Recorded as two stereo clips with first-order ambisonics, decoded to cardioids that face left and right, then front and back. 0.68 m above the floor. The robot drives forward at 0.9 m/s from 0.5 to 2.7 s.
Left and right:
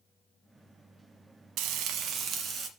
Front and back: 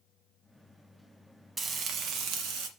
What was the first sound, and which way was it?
Frying, 110° right.